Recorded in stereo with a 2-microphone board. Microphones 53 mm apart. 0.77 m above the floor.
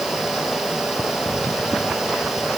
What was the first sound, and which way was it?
Only background noise.